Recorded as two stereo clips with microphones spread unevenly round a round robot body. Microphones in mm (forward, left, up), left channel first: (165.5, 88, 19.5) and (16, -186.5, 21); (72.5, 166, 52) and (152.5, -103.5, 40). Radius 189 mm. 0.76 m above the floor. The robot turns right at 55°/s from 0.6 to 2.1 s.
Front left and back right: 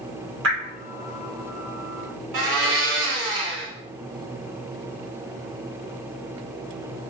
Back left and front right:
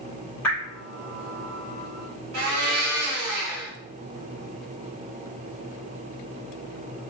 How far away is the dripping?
About 1.5 m.